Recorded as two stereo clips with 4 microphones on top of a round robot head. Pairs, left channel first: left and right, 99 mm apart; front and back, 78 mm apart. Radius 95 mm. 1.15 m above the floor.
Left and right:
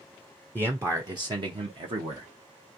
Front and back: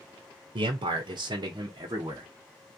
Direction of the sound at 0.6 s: 160° right.